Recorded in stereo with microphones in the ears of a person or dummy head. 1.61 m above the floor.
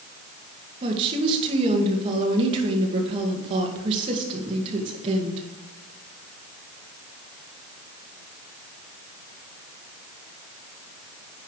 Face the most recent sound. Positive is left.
turn(degrees=-35)  # may be behind; listen again after turning